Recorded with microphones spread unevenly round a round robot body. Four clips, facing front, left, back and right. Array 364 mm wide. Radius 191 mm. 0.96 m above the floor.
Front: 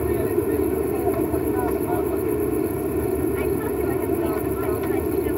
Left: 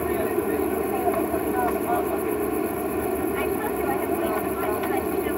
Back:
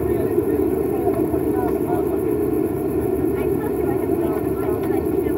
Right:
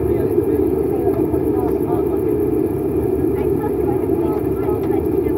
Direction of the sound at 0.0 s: 115° right.